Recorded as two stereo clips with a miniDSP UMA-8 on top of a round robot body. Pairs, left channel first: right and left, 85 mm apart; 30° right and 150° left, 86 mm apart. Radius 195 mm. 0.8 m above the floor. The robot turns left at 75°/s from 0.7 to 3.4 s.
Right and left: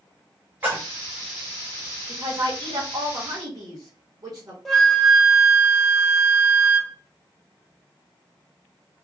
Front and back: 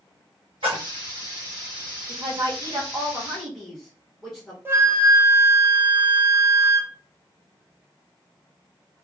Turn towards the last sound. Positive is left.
turn(degrees=-175)